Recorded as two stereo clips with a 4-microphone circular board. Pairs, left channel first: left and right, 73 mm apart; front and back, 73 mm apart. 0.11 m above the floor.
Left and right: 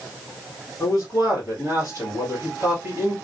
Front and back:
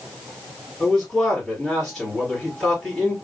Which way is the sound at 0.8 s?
85° right.